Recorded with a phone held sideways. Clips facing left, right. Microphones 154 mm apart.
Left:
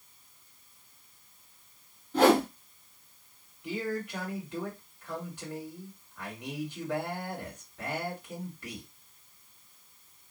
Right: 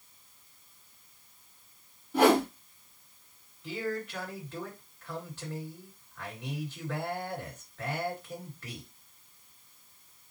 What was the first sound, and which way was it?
A whoosh, 5° right (ahead or behind).